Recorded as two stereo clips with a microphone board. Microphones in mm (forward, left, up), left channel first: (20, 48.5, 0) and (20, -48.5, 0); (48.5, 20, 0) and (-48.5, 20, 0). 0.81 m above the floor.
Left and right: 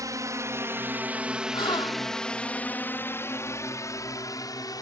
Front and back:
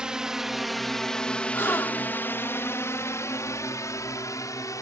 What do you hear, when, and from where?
0.0 s a drone: 105° right; by 4.8 s 50° left
1.5 s a gasp: 65° left